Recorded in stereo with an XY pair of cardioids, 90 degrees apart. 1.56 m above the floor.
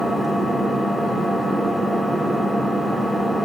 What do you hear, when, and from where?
0.0 s an engine running: 30° right, 4.5 m